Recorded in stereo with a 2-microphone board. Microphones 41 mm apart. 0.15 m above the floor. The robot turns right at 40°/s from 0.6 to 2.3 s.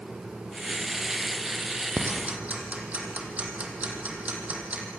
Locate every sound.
2.0 s ticking: 50° right (ahead or behind), 4 m; by 4.8 s 35° right (ahead or behind), 4 m